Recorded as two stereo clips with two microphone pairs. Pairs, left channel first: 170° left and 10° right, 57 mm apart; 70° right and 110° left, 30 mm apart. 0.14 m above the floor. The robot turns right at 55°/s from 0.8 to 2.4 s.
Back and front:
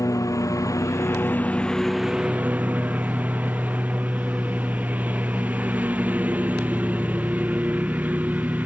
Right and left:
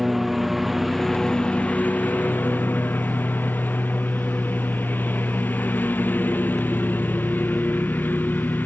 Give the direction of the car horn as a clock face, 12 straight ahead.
I don't hear a car horn.